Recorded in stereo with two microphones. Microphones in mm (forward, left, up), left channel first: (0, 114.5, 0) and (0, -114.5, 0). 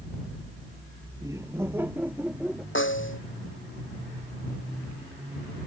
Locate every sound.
1.2 s laughter: 15° right (ahead or behind); by 2.6 s centre (ahead or behind)
2.8 s a snare drum: 60° left (ahead or behind)